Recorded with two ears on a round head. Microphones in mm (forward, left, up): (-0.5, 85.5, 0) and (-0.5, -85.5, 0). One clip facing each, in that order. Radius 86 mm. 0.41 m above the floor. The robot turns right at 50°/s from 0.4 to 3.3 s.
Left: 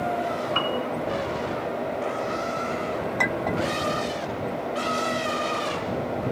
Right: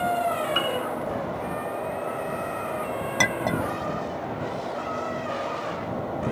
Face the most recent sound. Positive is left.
turn(degrees=-55)  # may be behind; listen again after turning